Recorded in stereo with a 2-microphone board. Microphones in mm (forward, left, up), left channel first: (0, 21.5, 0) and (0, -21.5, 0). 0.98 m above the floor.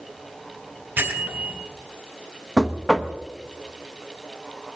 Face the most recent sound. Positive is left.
turn(degrees=-5)  # may be behind; listen again after turning